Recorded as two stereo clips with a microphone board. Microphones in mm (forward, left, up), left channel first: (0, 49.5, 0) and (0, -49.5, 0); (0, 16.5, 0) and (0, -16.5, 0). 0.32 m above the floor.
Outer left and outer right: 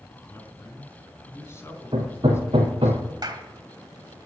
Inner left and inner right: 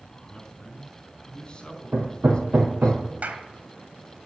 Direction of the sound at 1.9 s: 60° right (ahead or behind).